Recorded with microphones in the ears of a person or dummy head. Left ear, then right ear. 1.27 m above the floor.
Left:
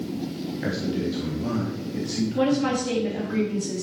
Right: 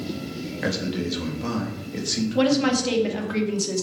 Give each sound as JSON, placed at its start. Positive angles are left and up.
{"t": 0.6, "sound": "a man speaking", "side_deg": -35, "distance_m": 2.5}
{"t": 2.4, "sound": "a woman speaking", "side_deg": -40, "distance_m": 2.0}